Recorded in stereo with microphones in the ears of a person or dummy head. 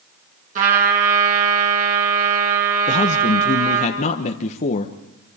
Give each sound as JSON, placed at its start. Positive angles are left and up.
{"t": 0.6, "sound": "a trumpet", "side_deg": -40, "distance_m": 5.5}
{"t": 2.9, "sound": "a man speaking", "side_deg": 50, "distance_m": 1.1}